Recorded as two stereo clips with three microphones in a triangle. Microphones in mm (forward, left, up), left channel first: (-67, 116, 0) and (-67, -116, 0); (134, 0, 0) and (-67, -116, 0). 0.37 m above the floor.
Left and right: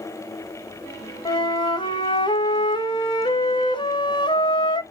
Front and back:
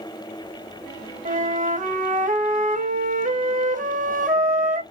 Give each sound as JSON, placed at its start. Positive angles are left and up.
{"t": 1.2, "sound": "a flute", "azimuth_deg": 160, "distance_m": 0.5}